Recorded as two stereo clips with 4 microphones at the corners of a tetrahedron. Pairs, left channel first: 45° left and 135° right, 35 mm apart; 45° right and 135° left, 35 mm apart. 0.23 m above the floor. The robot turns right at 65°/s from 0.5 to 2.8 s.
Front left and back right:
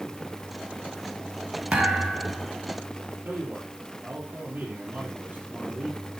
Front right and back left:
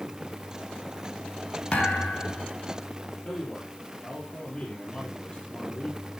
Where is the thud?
90° right, 3.5 m; by 2.5 s 40° right, 3.5 m.